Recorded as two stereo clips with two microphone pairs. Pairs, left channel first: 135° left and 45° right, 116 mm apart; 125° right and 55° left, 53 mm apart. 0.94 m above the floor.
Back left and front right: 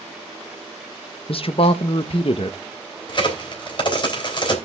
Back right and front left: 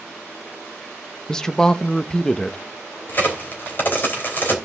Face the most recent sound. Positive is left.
turn(degrees=-175)